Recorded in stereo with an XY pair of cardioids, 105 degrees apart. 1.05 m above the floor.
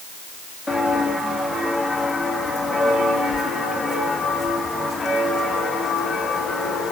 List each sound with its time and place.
0.7 s footsteps: 5° left, 4.5 m; by 6.9 s 50° left, 3 m